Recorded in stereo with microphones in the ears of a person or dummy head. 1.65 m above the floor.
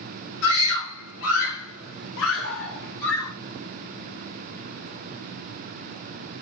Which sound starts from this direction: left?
A scream, at 0.4 s.